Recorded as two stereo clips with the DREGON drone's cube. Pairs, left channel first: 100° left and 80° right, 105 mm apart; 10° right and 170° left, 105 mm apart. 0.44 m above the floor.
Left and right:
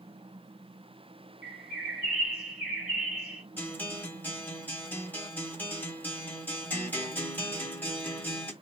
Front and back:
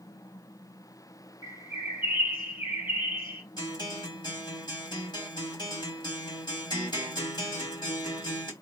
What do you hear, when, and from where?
1.4 s a bird: 5° left, 2.5 m
3.6 s a guitar: 30° left, 2 m